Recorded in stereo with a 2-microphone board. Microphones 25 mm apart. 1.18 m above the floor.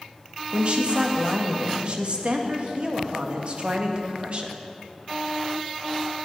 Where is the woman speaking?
50° right (ahead or behind), 1.6 m.